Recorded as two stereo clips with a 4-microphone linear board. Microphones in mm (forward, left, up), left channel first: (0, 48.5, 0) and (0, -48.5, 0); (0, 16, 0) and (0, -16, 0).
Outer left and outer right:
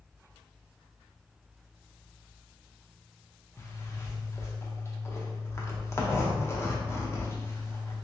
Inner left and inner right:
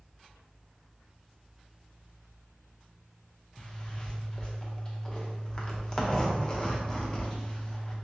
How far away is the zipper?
About 0.7 m.